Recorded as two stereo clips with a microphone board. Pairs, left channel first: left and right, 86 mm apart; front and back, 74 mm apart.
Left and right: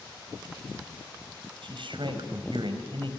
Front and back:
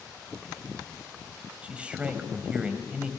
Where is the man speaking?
105° right, 4 m.